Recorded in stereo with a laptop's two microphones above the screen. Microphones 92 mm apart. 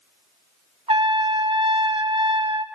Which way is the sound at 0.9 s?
75° right (ahead or behind).